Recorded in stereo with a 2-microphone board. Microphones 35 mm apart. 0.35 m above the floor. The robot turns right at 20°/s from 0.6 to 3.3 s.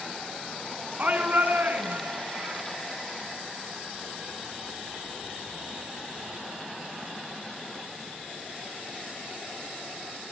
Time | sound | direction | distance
1.0 | a shout | 130° right | 3.5 m